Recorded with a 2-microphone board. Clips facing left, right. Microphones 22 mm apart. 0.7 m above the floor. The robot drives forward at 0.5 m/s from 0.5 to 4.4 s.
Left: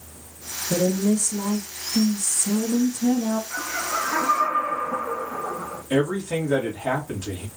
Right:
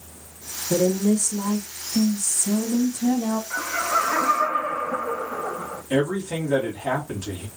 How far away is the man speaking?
About 1.5 m.